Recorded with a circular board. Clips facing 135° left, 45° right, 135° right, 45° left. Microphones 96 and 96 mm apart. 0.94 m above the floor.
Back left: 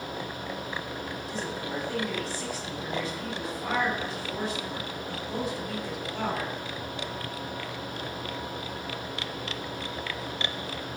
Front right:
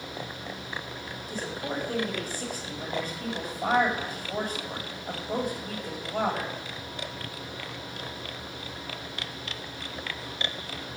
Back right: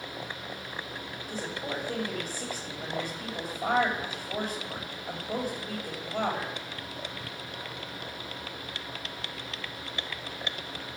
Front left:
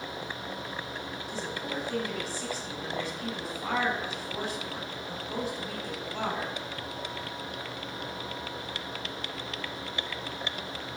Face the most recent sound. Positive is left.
turn(degrees=-90)